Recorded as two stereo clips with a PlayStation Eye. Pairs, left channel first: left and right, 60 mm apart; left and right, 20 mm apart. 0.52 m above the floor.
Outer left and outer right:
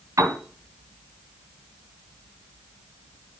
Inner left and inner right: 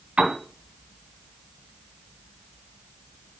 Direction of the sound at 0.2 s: 65° right (ahead or behind).